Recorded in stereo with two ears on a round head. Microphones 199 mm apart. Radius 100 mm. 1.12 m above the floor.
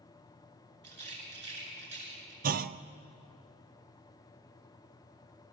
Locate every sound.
0.8 s a rattle: 50° right (ahead or behind), 9 m
2.4 s a clunk: 40° right (ahead or behind), 0.6 m